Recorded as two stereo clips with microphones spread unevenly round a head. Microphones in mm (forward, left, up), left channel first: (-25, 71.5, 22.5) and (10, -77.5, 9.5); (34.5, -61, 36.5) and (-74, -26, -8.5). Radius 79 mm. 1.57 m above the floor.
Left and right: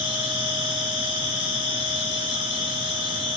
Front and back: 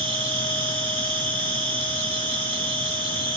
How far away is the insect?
About 9.5 m.